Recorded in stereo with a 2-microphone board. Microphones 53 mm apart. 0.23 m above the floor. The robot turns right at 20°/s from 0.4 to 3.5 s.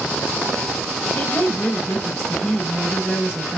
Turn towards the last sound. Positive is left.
turn(degrees=5)  # may be behind; listen again after turning